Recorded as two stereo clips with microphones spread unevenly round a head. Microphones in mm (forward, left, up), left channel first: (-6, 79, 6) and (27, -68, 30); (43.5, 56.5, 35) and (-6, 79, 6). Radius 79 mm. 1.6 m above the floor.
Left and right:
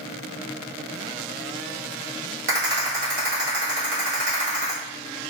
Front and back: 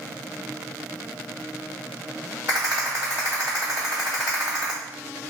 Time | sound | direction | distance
2.5 | a rattle | 125° right | 1.3 m